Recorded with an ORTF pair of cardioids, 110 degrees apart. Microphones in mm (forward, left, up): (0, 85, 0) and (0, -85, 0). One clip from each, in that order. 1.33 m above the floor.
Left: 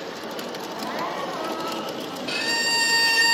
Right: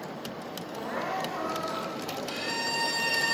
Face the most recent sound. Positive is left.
turn(degrees=60)